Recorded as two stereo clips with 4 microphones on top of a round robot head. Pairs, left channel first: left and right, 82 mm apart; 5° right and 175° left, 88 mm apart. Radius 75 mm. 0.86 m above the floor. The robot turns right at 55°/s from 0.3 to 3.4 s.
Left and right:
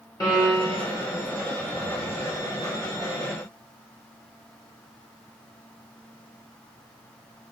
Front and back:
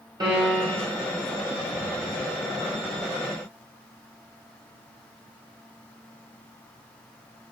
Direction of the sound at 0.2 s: 135° left.